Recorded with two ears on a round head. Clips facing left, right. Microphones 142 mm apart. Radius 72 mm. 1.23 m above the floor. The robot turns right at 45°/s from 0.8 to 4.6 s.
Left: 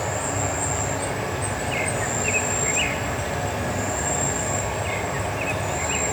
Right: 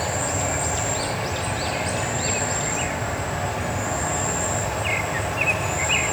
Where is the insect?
Straight ahead, 1.1 m; by 6.1 s 170° left, 1.1 m.